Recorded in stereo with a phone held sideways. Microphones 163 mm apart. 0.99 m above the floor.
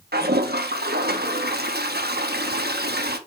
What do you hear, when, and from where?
0.1 s a toilet flushing: 80° right, 1.0 m